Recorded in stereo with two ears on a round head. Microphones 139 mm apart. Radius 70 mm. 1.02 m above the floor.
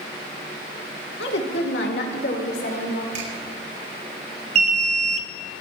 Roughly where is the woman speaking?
Left.